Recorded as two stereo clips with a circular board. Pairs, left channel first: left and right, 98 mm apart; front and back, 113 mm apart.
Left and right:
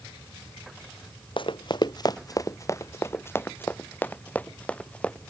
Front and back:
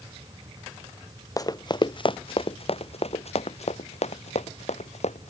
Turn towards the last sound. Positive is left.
turn(degrees=10)